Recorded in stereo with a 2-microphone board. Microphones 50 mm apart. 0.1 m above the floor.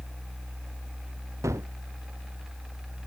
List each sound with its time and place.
1.4 s a gunshot: 75° right (ahead or behind)